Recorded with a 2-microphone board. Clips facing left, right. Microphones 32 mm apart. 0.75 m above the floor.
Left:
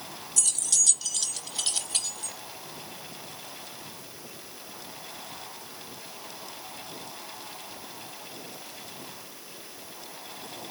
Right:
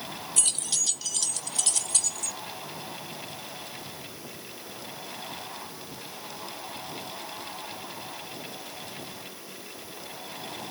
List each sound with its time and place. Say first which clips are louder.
0.4 s keys jangling: left 2 dB; 40° right (ahead or behind), 0.8 m; by 2.4 s 25° left (ahead or behind), 1.6 m